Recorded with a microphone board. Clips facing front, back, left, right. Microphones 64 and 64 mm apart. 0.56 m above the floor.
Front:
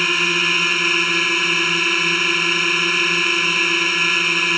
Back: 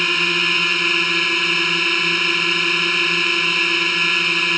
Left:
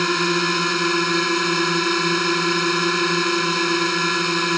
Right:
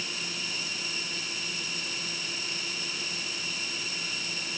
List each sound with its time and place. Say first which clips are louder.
0.0 s a drone: even, left 18 dB; 85° left